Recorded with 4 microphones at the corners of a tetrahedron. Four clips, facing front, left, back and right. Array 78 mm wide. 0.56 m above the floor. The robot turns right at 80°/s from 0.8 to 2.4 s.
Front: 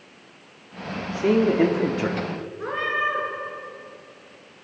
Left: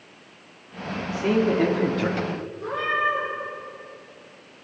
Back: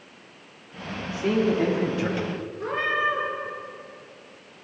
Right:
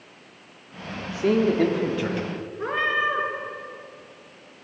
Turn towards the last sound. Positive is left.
turn(degrees=-60)